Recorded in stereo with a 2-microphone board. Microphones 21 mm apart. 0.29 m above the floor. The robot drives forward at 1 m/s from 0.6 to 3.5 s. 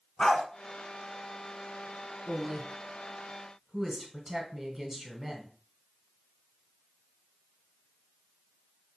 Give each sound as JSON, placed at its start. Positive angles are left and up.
{"t": 0.2, "sound": "a dog barking", "side_deg": 55, "distance_m": 0.8}
{"t": 2.3, "sound": "a woman speaking", "side_deg": -5, "distance_m": 2.0}